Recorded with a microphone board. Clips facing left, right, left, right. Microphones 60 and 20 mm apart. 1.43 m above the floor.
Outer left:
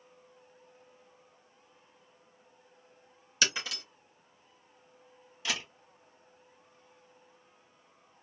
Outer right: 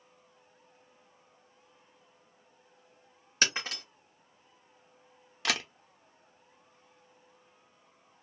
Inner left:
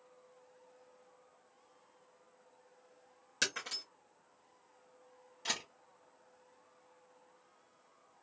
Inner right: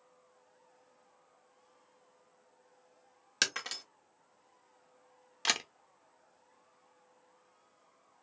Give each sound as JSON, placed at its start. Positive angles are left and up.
{"t": 3.4, "sound": "breaking glass", "side_deg": -40, "distance_m": 1.0}
{"t": 5.5, "sound": "a camera shutter", "side_deg": -70, "distance_m": 0.6}